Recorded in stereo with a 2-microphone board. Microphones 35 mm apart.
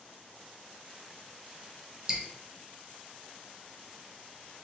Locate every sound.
2.1 s dripping: 15° right (ahead or behind), 0.7 m